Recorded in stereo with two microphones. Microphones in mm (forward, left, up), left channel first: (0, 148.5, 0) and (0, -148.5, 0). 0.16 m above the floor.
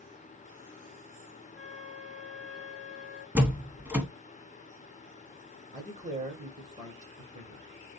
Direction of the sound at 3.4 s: 5° right (ahead or behind).